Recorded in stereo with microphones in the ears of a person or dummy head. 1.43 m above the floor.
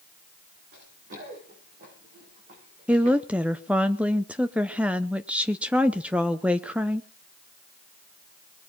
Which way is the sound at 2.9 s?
10° right (ahead or behind).